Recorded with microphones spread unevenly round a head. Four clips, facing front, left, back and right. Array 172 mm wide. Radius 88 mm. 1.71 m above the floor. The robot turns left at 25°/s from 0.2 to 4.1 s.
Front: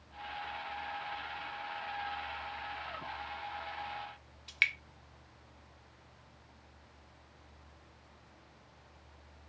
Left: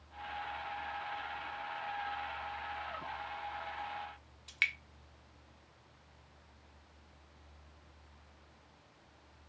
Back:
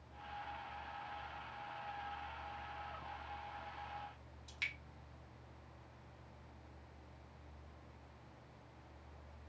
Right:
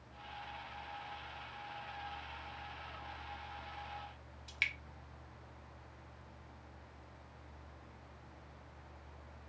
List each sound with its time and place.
4.5 s dripping: 30° left, 0.6 m